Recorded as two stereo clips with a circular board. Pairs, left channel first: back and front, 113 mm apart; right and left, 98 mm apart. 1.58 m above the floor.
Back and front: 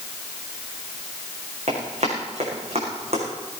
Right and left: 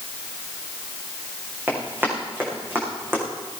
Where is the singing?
No singing in this recording.